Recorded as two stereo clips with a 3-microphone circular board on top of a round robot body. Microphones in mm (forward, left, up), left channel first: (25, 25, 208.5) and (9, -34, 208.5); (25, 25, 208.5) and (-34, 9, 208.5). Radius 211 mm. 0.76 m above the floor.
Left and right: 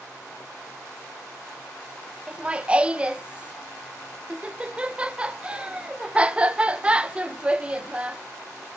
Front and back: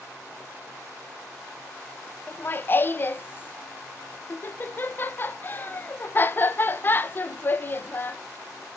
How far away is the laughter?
About 0.7 m.